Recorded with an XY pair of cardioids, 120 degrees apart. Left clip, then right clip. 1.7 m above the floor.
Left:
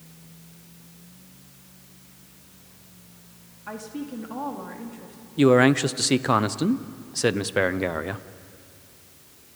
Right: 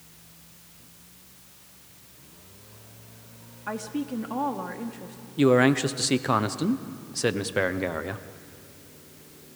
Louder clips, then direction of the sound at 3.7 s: Right 3 dB; 25° right.